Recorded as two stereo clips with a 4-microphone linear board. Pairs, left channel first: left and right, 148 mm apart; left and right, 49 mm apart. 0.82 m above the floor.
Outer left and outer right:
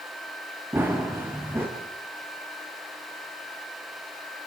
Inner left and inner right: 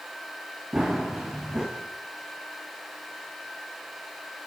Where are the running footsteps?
15° right (ahead or behind), 5 m.